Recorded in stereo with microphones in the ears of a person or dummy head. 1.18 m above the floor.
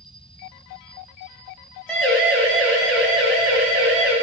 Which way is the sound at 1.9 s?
5° left (ahead or behind).